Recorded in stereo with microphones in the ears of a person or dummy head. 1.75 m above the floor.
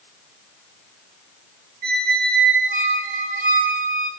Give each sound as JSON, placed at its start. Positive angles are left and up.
{"t": 1.8, "sound": "a squeak", "side_deg": -40, "distance_m": 1.3}